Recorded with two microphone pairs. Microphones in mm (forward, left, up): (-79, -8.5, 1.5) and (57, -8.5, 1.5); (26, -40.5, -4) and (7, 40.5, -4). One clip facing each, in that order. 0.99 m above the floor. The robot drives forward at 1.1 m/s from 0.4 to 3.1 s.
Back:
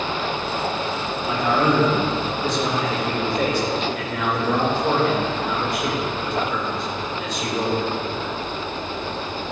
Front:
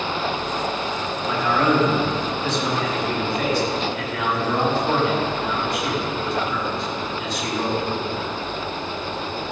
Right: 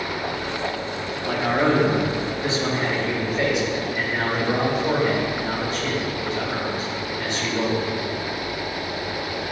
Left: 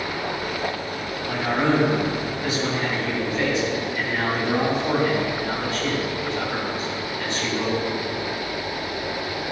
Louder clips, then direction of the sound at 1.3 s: Even, right 1 dB; 100° right.